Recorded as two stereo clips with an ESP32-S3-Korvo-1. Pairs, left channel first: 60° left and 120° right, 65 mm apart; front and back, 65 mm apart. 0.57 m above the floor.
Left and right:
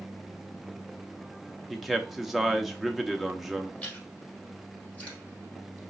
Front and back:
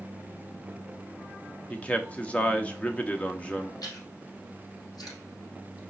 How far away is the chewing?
About 3 m.